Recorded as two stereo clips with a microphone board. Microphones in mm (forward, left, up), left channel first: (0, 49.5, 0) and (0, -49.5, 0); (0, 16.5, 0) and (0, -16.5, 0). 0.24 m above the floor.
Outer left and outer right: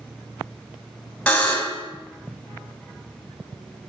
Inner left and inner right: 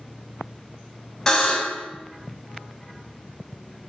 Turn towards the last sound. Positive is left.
turn(degrees=10)  # may be behind; listen again after turning